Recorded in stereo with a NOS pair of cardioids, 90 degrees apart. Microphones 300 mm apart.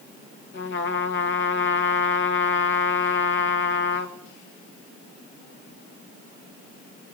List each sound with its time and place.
0.5 s a trumpet: 40° left, 2.5 m